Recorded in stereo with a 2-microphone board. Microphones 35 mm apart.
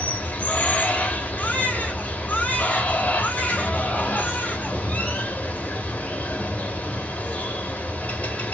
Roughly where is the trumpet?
No trumpet in this recording.